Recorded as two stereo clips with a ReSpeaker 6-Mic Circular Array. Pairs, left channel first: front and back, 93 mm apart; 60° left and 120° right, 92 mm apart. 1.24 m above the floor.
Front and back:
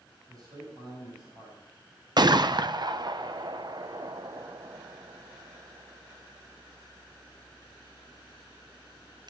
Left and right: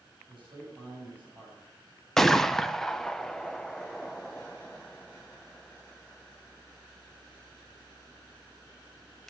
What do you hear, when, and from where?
0.3 s a man speaking: 140° right, 7 m
2.2 s a gunshot: 145° left, 0.6 m